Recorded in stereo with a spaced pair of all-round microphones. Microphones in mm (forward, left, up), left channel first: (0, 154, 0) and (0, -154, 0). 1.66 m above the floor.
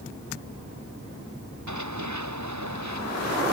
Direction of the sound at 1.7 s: 65° right (ahead or behind).